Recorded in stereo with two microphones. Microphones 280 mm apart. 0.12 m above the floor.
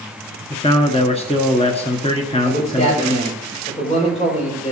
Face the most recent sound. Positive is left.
turn(degrees=25)  # may be behind; listen again after turning